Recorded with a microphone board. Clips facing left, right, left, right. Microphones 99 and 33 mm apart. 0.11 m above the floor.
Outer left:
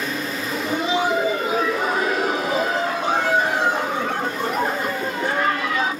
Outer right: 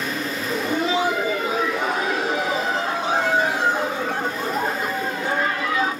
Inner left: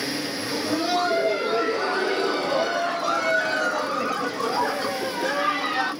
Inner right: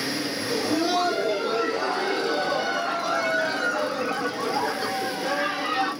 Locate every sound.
0.5 s laughter: 10° left (ahead or behind), 1.4 m; by 5.9 s 75° left (ahead or behind), 3.5 m